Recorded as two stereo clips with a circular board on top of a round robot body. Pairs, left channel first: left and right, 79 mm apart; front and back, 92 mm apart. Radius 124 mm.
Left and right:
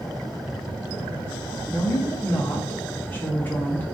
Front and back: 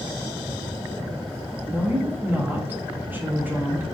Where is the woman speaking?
135° left, 0.9 m.